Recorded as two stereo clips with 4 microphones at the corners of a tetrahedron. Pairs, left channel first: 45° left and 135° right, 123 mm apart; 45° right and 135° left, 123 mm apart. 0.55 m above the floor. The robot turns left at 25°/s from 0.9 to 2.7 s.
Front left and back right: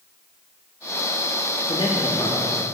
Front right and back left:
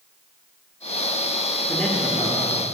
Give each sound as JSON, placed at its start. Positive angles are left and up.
{"t": 1.7, "sound": "a man speaking", "azimuth_deg": 45, "distance_m": 0.7}